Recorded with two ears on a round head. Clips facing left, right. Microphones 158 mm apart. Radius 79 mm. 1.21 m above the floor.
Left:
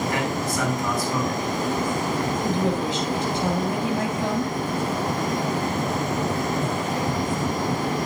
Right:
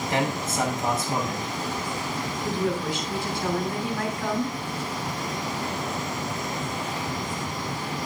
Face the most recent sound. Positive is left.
turn(degrees=20)  # may be behind; listen again after turning